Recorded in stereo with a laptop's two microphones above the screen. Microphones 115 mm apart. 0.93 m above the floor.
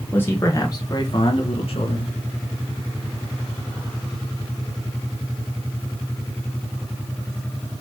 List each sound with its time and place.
0.1 s a man speaking: 15° left (ahead or behind), 1.1 m; by 2.1 s 55° left (ahead or behind), 1.6 m